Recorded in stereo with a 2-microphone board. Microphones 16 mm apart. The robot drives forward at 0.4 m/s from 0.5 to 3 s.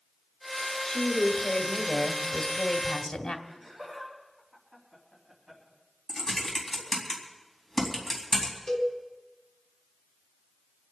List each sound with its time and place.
0.9 s a woman speaking: 45° left (ahead or behind), 2.5 m; by 3.4 s 55° left (ahead or behind), 1.9 m
3.5 s laughter: 10° right (ahead or behind), 4.5 m
6.1 s typing on a keyboard: 15° left (ahead or behind), 4 m
8.7 s a cowbell: 40° left (ahead or behind), 4.5 m